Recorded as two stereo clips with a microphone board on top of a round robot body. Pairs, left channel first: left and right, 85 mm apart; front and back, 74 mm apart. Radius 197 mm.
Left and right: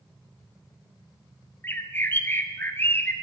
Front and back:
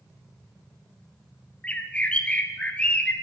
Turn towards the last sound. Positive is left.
turn(degrees=55)